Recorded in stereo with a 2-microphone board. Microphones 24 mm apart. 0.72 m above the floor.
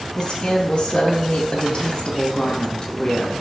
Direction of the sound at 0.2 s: 40° left (ahead or behind).